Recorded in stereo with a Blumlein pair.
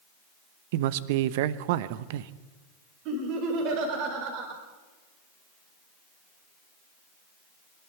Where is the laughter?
40° right, 4 m.